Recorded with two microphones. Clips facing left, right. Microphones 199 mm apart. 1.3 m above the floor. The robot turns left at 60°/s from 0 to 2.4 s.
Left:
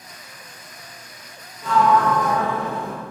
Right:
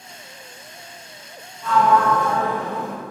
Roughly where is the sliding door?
Ahead left.